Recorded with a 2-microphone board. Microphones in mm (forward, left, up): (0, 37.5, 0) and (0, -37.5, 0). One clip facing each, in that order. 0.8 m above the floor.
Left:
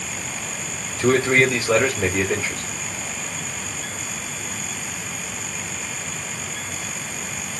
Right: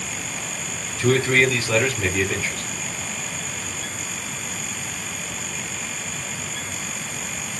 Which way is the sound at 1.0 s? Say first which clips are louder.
Left 1 dB; 30° left (ahead or behind).